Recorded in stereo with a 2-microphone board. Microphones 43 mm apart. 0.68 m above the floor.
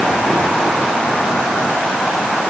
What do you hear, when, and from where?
Only background noise.